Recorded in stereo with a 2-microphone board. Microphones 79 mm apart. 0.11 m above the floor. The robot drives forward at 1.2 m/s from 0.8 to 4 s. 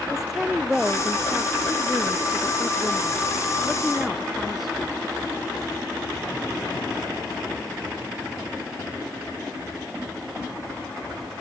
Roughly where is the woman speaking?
Centre.